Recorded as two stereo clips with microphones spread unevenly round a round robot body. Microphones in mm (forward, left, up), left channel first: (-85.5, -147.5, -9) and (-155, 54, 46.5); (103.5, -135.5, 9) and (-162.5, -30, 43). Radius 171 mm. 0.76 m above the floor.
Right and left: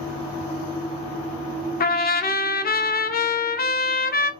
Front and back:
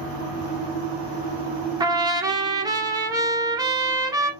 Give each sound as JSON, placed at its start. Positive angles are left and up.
{"t": 1.8, "sound": "a trumpet", "azimuth_deg": -125, "distance_m": 0.7}